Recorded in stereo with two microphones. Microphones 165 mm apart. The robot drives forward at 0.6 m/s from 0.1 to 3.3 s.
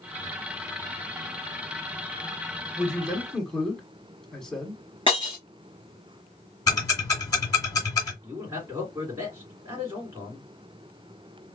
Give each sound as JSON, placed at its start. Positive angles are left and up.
{"t": 2.8, "sound": "a man speaking", "side_deg": 5, "distance_m": 1.3}
{"t": 5.1, "sound": "breaking glass", "side_deg": 30, "distance_m": 2.5}
{"t": 6.7, "sound": "ticking", "side_deg": 25, "distance_m": 1.8}
{"t": 8.2, "sound": "a man speaking", "side_deg": -15, "distance_m": 2.0}